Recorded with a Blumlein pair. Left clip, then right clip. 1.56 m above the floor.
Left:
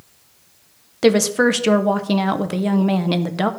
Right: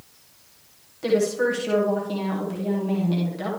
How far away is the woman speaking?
About 0.8 m.